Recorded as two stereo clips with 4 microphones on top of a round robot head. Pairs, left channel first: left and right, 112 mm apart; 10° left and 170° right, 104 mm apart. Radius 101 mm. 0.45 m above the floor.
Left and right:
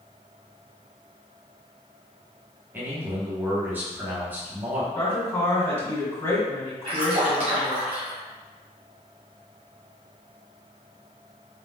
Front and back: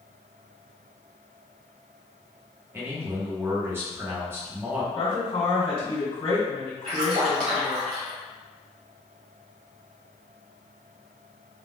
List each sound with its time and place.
2.7 s a man speaking: 140° right, 1.1 m
5.0 s a woman speaking: 25° left, 1.8 m
6.8 s a splash: 135° right, 1.1 m